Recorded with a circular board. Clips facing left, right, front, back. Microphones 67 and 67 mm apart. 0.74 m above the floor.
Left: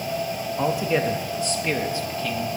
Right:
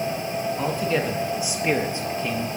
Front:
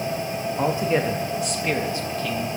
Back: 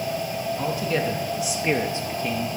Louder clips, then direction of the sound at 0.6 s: Left 4 dB, front 5 dB; 25° left.